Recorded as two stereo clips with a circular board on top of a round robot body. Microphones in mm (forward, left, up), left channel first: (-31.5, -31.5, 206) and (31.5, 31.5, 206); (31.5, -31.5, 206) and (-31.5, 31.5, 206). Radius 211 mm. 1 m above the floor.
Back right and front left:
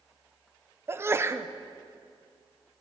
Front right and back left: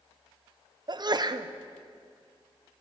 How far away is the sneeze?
About 0.8 m.